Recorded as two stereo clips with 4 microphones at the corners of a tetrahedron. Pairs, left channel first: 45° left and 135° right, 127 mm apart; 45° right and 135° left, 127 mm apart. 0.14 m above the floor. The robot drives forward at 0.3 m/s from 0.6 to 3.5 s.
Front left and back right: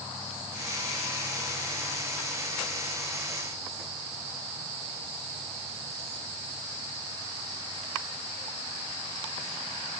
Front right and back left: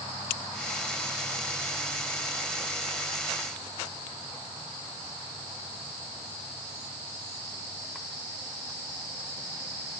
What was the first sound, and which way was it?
Only background noise.